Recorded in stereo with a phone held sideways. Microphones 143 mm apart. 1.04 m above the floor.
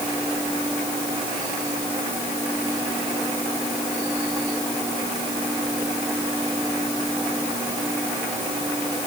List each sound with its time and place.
Only background noise.